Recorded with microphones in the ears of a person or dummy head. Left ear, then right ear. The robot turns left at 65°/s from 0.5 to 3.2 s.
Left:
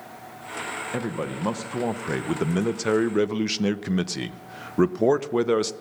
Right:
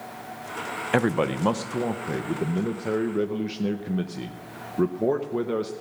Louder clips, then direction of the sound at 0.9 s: Right 6 dB; 140° right.